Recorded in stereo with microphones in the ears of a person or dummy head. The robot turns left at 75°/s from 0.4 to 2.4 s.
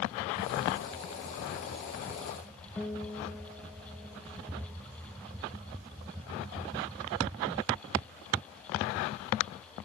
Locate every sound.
2.8 s a guitar: 10° left (ahead or behind), 0.8 m